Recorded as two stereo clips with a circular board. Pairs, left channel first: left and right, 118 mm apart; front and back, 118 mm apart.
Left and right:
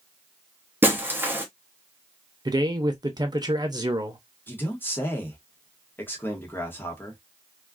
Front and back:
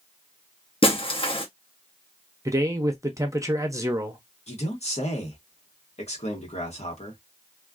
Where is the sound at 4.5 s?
20° left, 1.1 m.